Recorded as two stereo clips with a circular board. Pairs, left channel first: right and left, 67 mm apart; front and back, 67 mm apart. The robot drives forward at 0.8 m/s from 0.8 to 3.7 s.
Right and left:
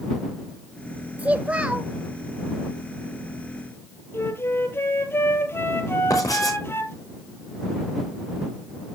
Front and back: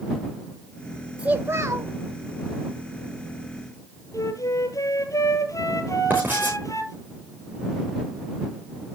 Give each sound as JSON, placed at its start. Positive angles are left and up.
{"t": 1.2, "sound": "a child speaking", "azimuth_deg": 125, "distance_m": 0.6}
{"t": 4.1, "sound": "a flute", "azimuth_deg": -35, "distance_m": 1.7}
{"t": 6.1, "sound": "writing", "azimuth_deg": -120, "distance_m": 6.0}